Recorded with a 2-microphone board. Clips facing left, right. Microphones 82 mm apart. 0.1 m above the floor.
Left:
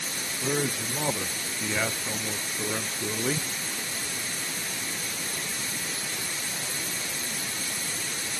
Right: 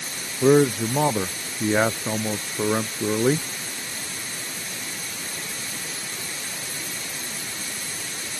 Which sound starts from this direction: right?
A man speaking, at 0.4 s.